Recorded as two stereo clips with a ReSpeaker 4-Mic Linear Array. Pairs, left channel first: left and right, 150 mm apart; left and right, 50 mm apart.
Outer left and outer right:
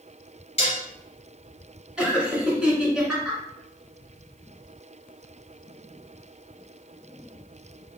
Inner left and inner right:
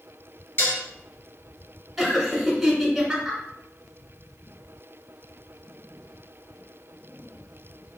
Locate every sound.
0.6 s dishes clattering: 50° left (ahead or behind), 1.7 m
2.0 s laughter: 5° right (ahead or behind), 1.8 m